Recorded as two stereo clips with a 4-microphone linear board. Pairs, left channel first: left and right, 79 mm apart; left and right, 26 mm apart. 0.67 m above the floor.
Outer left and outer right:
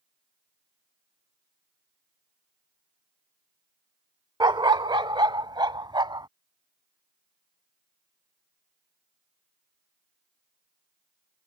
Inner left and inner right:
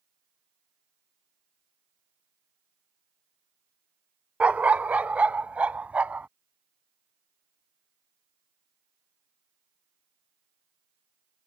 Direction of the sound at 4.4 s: 65° right (ahead or behind).